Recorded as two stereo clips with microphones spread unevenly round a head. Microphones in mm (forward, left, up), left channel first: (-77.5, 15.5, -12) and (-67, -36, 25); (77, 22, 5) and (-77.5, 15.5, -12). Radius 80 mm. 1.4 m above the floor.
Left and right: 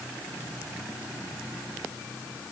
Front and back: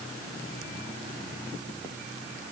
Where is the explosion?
I don't hear an explosion.